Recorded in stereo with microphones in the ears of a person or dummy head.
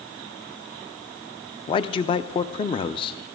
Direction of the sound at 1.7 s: 25° left (ahead or behind).